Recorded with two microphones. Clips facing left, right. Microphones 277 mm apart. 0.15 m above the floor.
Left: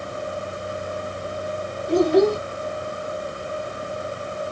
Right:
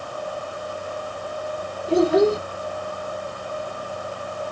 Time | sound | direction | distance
1.9 | a child speaking | 5° right (ahead or behind) | 0.7 m